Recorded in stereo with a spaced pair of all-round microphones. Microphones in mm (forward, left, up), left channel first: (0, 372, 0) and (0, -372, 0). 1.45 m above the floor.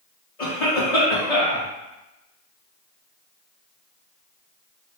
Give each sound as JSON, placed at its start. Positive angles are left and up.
{"t": 0.4, "sound": "a cough", "side_deg": 55, "distance_m": 1.9}